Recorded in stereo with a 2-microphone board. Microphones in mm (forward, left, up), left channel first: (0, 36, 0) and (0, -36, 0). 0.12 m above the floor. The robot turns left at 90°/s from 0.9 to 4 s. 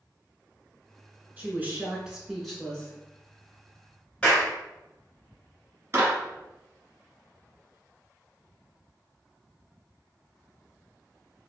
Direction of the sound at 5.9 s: 35° right (ahead or behind).